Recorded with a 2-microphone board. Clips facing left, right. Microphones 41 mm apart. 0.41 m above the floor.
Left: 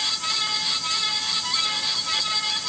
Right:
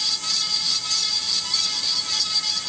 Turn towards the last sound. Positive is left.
No sound to turn to.